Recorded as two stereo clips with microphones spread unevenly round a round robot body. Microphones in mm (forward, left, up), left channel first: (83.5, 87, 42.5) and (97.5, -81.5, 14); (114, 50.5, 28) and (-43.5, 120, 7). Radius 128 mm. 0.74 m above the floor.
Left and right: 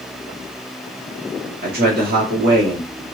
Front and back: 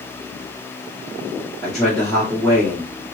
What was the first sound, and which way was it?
A man speaking, 115° right.